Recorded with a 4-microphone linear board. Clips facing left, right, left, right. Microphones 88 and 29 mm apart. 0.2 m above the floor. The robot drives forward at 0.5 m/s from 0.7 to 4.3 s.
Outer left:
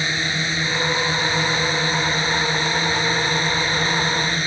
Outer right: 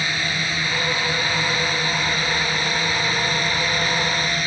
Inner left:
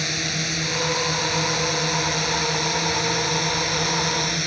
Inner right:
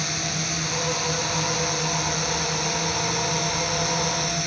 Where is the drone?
25° left (ahead or behind).